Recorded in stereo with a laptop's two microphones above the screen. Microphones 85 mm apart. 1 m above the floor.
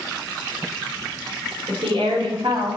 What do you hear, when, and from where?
1.7 s a woman speaking: 85° right, 2.5 m